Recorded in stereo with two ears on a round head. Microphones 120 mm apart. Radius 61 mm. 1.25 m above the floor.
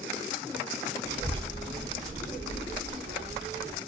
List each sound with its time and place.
1.0 s a child speaking: 30° right (ahead or behind), 1.2 m; by 3.8 s 40° right (ahead or behind), 1.5 m